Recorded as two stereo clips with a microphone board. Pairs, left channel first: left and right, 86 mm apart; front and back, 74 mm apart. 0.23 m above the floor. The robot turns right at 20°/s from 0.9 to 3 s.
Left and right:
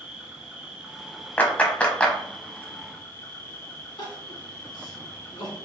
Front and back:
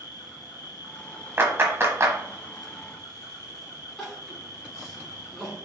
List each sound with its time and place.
0.0 s an insect: 15° right, 0.8 m; by 5.7 s 30° left, 0.8 m
1.4 s a clap: 145° left, 0.9 m; by 2.2 s 160° left, 0.9 m
4.0 s crying: 85° left, 1.8 m